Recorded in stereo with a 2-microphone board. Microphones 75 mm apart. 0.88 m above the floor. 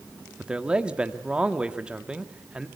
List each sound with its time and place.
0.4 s a man speaking: 15° right (ahead or behind), 1.8 m